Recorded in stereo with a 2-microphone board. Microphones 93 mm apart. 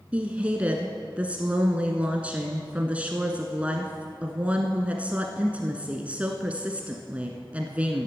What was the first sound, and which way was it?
A woman speaking, 15° right (ahead or behind).